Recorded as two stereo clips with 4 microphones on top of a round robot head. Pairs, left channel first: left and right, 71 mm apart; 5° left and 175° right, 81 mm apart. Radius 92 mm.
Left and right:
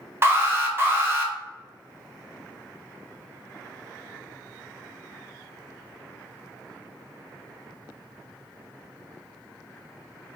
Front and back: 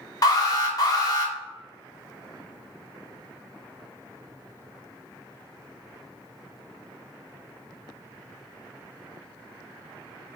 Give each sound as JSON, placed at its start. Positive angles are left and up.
{"t": 0.2, "sound": "an alarm", "azimuth_deg": -35, "distance_m": 1.2}